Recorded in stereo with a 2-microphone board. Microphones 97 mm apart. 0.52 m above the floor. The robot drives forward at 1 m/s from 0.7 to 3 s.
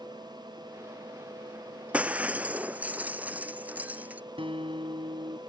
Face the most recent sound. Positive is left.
turn(degrees=-65)  # may be behind; listen again after turning